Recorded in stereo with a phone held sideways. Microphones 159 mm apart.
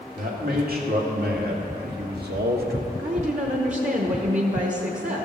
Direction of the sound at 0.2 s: 65° right (ahead or behind).